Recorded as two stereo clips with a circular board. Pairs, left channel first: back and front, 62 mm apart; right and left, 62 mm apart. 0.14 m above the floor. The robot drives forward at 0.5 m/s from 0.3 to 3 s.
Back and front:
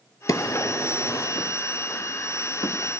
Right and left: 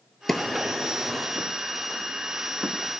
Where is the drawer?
175° right, 0.6 m; by 2.7 s straight behind, 1.8 m.